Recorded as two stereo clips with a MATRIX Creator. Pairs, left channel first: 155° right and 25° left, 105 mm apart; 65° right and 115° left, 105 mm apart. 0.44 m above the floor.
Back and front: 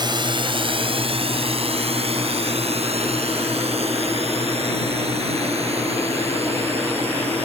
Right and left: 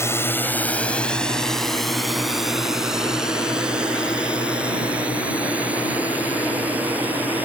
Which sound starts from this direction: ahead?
A drone, at 0.0 s.